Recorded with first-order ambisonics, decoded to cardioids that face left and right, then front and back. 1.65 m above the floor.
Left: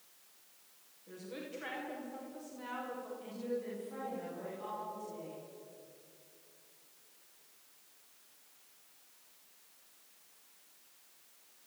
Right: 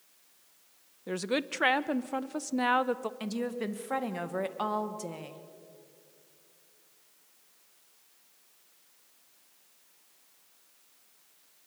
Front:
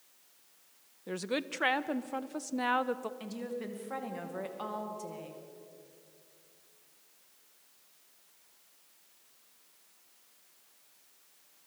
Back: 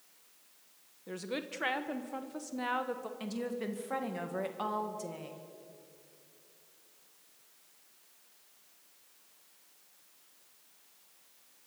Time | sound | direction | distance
1.1 | a woman speaking | 70° right | 0.9 m
3.2 | a woman speaking | 100° right | 2 m